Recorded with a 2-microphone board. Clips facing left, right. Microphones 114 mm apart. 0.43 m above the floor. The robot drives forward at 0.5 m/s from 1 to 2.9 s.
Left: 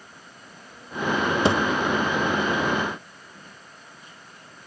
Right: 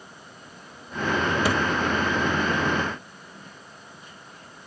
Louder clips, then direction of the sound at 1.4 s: Left 5 dB; 25° left (ahead or behind).